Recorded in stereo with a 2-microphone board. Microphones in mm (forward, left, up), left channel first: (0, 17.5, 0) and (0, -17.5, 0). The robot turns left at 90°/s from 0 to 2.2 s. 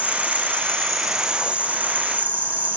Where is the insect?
90° left, 1.5 m; by 2.8 s 105° right, 1.5 m.